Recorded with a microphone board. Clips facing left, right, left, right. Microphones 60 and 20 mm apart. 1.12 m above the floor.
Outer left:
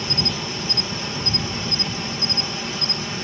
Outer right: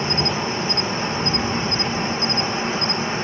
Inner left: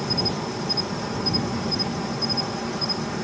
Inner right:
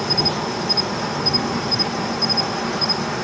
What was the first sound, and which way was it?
An insect, 35° right (ahead or behind).